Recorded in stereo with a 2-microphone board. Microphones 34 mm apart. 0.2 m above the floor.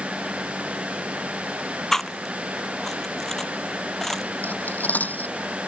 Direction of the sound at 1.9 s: 10° left (ahead or behind).